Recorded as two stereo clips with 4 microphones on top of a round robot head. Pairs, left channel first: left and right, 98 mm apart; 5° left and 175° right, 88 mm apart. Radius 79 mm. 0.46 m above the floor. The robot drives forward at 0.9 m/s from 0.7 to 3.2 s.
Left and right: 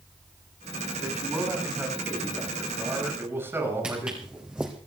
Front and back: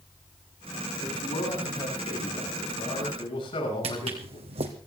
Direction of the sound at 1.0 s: 20° right.